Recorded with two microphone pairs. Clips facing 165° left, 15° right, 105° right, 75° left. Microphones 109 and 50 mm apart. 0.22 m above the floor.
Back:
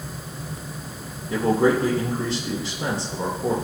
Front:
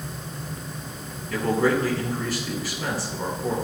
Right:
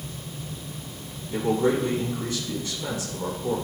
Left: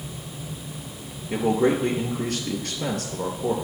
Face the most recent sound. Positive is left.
turn(degrees=100)